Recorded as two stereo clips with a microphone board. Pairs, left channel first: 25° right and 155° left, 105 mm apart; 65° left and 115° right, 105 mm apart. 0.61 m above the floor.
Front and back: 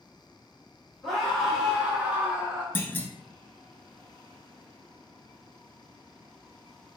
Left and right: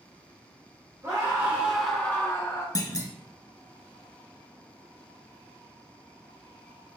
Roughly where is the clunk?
Ahead left.